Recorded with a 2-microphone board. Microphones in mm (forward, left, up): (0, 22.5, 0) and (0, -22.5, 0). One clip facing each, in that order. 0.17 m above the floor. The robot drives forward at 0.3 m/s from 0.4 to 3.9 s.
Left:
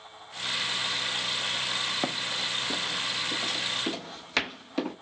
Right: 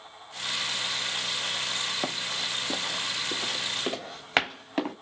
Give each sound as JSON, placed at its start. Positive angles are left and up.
{"t": 2.0, "sound": "running footsteps", "side_deg": 5, "distance_m": 0.7}